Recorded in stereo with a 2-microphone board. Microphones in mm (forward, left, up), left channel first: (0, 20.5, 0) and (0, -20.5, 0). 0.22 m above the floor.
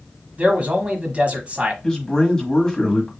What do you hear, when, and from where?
0.4 s a man speaking: 30° right (ahead or behind), 1.2 m
1.8 s a man speaking: 15° left (ahead or behind), 1.3 m